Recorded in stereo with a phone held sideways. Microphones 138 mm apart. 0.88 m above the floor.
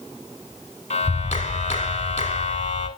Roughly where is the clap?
Left.